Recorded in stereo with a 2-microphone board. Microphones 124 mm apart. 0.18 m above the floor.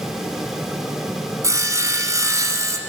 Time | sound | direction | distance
1.4 | sawing | 25° right (ahead or behind) | 1.2 m